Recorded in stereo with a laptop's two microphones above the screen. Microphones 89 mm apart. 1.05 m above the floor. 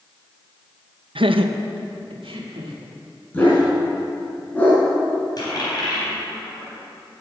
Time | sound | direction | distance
1.1 | laughter | 75° right (ahead or behind) | 0.6 m
3.3 | a dog barking | 20° left (ahead or behind) | 3.5 m
5.4 | a dropped coin | 50° left (ahead or behind) | 3.5 m